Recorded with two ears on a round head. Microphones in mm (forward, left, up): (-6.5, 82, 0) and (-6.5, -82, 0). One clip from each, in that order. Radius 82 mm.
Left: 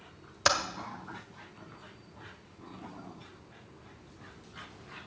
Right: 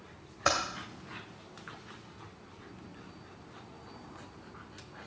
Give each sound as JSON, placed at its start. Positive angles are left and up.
{"t": 0.5, "sound": "typing on a keyboard", "side_deg": 70, "distance_m": 1.5}